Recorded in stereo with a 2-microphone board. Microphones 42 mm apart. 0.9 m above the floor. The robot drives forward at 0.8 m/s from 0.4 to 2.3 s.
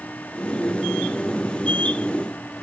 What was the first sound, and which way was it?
Only background noise.